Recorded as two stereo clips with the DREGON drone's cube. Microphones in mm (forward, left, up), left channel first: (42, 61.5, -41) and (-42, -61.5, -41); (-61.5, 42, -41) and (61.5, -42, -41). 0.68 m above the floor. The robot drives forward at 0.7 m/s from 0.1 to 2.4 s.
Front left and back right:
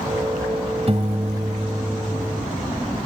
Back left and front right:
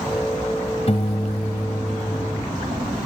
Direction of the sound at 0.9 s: 170° right.